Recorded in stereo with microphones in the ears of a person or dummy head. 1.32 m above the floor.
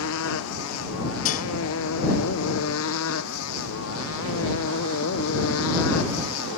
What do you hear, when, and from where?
0.0 s a motorcycle: 80° left
1.2 s dishes clattering: 40° left (ahead or behind)